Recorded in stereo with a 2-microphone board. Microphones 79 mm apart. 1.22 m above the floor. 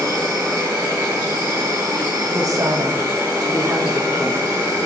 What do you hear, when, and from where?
0.0 s an insect: 30° right (ahead or behind), 4.5 m
2.3 s a woman speaking: 45° right (ahead or behind), 1.7 m